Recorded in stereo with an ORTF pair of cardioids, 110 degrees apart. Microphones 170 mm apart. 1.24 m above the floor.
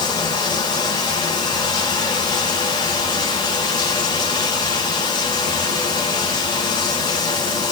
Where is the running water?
25° left, 9.5 m.